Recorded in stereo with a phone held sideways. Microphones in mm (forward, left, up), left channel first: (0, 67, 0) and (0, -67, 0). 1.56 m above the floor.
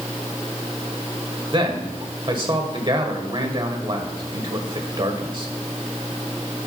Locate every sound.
1.5 s a man speaking: 40° right (ahead or behind), 1.5 m